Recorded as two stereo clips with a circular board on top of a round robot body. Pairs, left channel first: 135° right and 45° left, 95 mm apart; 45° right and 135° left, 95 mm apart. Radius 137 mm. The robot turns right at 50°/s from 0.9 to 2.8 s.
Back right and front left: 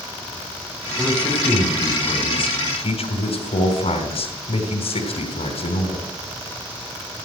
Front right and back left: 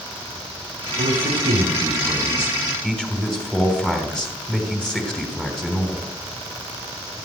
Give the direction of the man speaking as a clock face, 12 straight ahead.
7 o'clock.